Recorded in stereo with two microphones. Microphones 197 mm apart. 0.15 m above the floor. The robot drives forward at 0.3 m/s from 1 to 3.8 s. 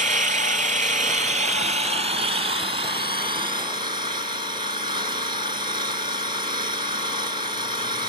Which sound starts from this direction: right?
An engine running, at 0.0 s.